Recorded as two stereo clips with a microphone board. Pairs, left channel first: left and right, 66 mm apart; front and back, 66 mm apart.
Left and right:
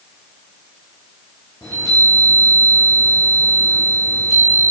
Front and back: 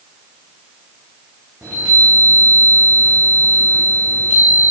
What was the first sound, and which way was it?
A chime, 115° left.